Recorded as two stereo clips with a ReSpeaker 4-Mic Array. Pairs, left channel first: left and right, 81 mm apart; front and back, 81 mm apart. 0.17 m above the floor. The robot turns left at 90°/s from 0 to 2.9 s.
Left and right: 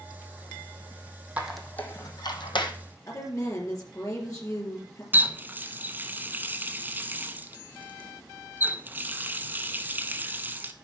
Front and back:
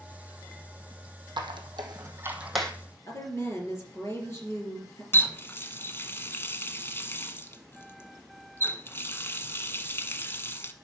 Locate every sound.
1.4 s a squeak: 160° right, 1.2 m; by 2.7 s 75° left, 1.2 m
3.1 s a woman speaking: 50° left, 4 m
5.1 s a running tap: 40° right, 0.9 m